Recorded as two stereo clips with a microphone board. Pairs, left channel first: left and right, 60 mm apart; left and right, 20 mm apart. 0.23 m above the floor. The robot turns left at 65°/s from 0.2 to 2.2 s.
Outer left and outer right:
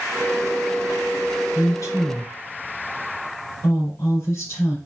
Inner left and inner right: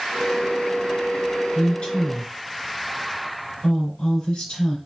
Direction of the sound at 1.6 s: 60° left (ahead or behind).